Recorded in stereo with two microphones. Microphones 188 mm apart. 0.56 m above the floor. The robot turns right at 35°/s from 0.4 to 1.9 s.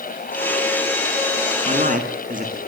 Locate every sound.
1.6 s a man speaking: 40° right (ahead or behind), 7 m; by 2.6 s 50° right (ahead or behind), 7 m